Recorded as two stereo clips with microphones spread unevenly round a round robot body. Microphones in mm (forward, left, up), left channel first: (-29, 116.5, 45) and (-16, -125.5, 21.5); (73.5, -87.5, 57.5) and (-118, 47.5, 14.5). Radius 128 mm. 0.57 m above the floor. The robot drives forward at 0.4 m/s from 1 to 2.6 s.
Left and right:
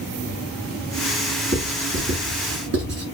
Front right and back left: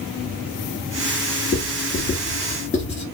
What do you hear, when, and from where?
1.5 s writing: 80° right, 1.9 m; by 3.0 s 100° right, 1.9 m